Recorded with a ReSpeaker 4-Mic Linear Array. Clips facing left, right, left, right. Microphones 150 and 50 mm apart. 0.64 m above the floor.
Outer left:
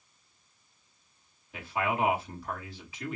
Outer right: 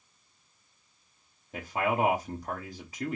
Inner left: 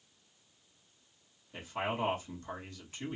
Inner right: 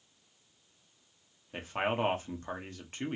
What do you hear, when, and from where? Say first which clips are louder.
1.5 s a man speaking: outer right 2 dB, inner right 4 dB; 40° right (ahead or behind), 1.1 m